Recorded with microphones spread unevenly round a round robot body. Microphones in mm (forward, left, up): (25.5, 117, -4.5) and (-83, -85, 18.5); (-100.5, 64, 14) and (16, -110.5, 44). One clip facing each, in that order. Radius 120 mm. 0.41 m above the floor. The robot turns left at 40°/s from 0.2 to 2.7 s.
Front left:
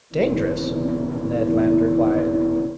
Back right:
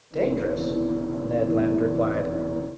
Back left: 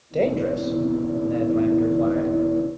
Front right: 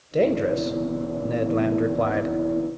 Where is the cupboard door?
I don't hear a cupboard door.